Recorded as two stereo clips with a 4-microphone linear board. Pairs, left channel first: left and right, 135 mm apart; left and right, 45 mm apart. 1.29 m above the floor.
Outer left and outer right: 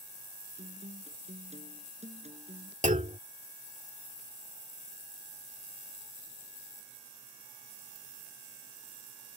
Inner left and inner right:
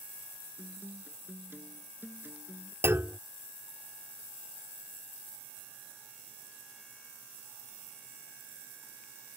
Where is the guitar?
50° right (ahead or behind).